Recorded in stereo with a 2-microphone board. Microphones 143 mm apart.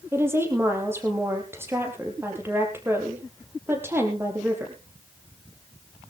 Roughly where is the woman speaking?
Centre.